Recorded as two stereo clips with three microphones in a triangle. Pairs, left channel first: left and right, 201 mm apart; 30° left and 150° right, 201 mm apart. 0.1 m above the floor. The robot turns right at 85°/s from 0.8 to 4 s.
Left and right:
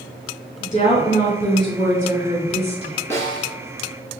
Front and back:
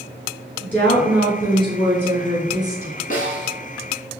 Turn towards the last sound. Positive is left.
turn(degrees=95)